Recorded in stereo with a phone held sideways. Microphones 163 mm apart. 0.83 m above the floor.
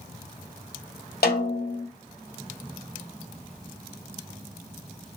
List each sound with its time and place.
1.2 s a snare drum: 75° left (ahead or behind), 1.7 m